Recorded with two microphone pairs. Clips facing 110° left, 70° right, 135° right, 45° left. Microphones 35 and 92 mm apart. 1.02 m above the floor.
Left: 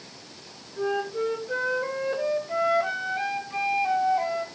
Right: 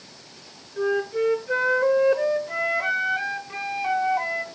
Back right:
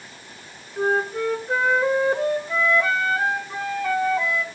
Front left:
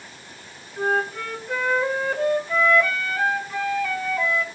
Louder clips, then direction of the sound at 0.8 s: Right 4 dB, back right 2 dB; 70° right.